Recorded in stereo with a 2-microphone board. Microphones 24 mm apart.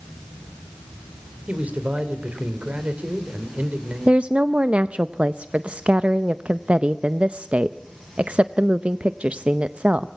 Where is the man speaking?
75° right (ahead or behind), 2.5 m.